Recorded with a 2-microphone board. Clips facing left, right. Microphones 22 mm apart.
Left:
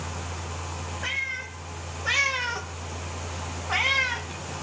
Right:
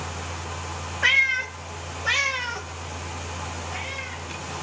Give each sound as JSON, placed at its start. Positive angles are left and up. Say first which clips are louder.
{"t": 1.0, "sound": "a cat meowing", "louder": "right 11 dB", "side_deg": -40, "distance_m": 1.3}